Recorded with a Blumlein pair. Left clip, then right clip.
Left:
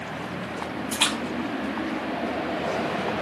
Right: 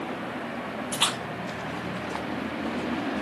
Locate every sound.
0.9 s a splash: 60° left, 1.4 m